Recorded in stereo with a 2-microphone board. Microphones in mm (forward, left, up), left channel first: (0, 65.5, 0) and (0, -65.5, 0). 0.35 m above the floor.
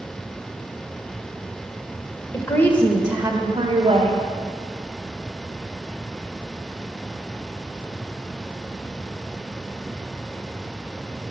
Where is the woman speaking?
30° left (ahead or behind), 1.1 m; by 4.2 s 50° right (ahead or behind), 1.5 m.